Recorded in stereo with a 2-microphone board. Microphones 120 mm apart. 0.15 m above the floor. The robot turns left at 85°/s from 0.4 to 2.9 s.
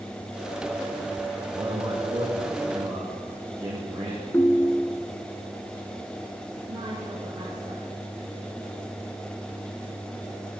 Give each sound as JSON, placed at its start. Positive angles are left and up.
{"t": 1.5, "sound": "a man speaking", "azimuth_deg": -30, "distance_m": 8.0}
{"t": 4.3, "sound": "a ringtone", "side_deg": 20, "distance_m": 0.9}
{"t": 6.7, "sound": "a woman speaking", "side_deg": -40, "distance_m": 4.0}